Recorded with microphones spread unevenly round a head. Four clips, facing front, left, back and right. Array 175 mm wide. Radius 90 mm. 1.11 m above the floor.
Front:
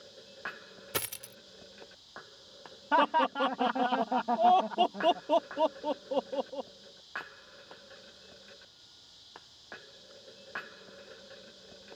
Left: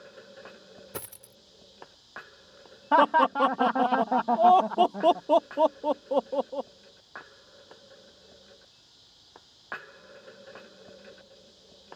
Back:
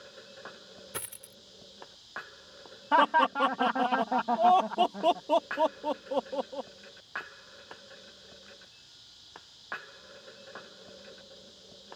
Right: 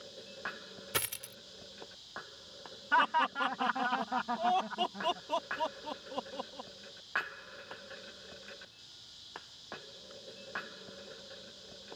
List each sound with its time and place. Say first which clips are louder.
0.9 s a dropped coin: right 3 dB, front 6 dB; 15° left
2.9 s laughter: left 8 dB, back 3 dB; 85° left